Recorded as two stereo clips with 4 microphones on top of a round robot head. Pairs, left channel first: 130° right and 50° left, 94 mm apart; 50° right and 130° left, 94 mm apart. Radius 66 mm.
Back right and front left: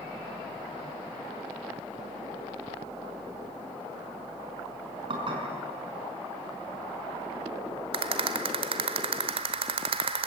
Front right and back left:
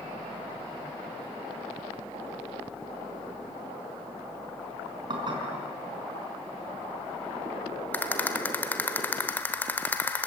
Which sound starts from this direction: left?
Dishes clattering, at 5.1 s.